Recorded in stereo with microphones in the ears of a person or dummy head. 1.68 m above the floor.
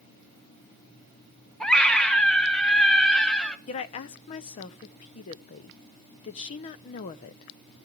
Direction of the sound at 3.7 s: 25° left (ahead or behind).